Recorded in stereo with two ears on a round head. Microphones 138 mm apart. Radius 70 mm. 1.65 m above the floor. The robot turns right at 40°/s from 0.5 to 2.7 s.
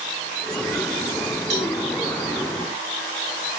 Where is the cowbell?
80° right, 6 m; by 1.8 s 70° right (ahead or behind), 6 m.